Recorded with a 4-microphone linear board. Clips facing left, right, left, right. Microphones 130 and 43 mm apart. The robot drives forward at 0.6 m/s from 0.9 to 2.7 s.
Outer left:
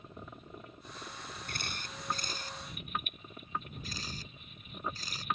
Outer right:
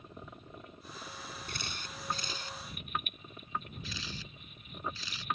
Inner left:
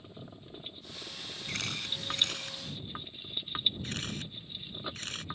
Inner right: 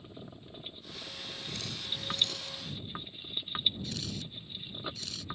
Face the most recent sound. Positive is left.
turn(degrees=45)  # may be behind; listen again after turning